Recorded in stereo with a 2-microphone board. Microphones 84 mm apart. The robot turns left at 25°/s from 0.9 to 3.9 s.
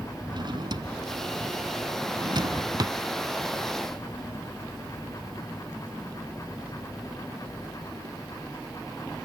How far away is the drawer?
About 0.9 m.